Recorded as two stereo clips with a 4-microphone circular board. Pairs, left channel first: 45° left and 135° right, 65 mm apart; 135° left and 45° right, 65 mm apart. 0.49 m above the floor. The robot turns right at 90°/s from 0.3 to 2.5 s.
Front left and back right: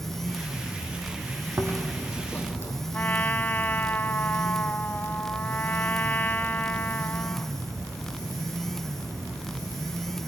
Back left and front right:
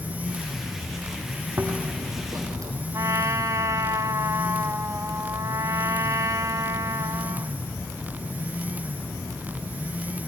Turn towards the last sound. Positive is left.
turn(degrees=-15)